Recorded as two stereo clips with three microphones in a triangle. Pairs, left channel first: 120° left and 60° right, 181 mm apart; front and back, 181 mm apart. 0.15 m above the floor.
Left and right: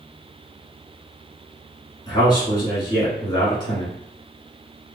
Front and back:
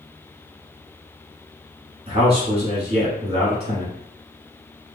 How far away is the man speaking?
About 1.2 m.